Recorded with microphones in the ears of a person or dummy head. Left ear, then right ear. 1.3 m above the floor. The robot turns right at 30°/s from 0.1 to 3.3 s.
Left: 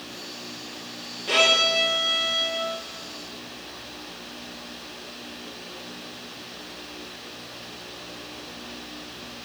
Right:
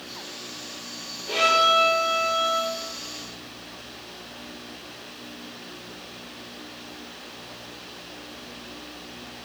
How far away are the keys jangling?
No keys jangling in this recording.